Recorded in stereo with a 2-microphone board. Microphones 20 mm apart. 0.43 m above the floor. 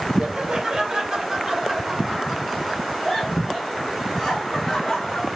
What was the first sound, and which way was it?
Laughter, 40° right (ahead or behind).